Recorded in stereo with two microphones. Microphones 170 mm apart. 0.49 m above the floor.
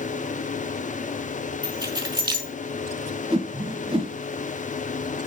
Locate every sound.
1.6 s keys jangling: 25° right (ahead or behind), 1.6 m
3.3 s a whoosh: 30° right (ahead or behind), 0.6 m